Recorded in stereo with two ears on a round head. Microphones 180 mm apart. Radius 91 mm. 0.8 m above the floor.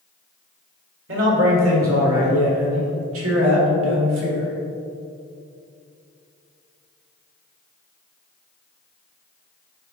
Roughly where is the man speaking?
Right.